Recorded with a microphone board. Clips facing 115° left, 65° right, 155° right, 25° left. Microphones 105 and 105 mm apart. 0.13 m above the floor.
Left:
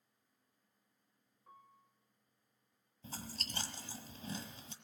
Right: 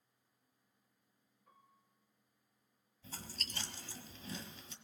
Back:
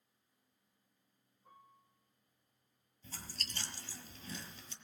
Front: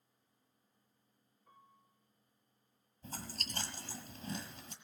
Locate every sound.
1.5 s a piano: 155° left, 6 m
3.0 s chewing: 65° left, 1.4 m